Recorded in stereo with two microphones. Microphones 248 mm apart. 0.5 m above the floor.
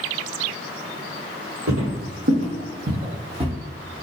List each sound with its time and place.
1.7 s footsteps: 65° right (ahead or behind), 1.1 m; by 3.5 s 20° right (ahead or behind), 1.0 m